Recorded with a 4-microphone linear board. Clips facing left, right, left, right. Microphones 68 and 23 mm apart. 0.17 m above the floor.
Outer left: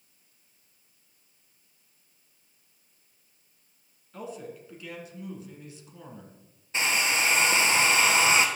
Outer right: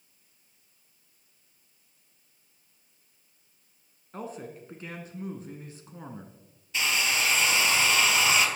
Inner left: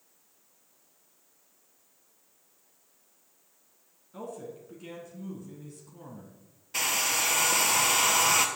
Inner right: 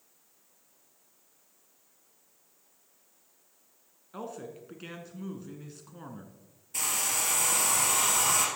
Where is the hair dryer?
35° left (ahead or behind), 1.3 m.